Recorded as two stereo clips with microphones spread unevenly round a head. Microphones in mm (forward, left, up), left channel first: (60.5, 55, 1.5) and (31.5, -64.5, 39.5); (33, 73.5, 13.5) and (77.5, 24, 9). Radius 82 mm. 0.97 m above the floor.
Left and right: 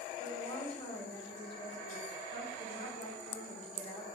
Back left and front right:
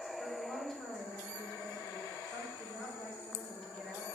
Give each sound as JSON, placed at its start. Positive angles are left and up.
{"t": 0.2, "sound": "a woman speaking", "azimuth_deg": 50, "distance_m": 3.5}